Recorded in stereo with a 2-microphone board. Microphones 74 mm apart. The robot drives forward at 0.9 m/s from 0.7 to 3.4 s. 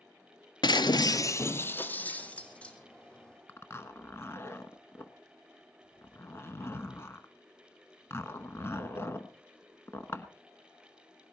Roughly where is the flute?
I don't hear a flute.